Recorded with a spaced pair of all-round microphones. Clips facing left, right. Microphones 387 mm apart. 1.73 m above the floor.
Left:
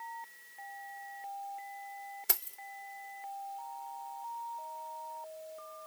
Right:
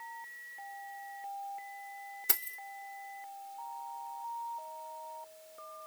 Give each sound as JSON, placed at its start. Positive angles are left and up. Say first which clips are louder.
{"t": 2.3, "sound": "keys jangling", "louder": "left 1 dB", "side_deg": 0, "distance_m": 0.6}